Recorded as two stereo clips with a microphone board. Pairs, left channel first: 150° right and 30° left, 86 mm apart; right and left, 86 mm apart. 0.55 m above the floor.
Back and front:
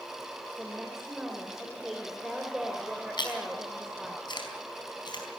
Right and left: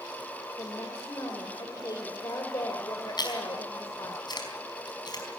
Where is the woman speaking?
55° right, 2.5 m.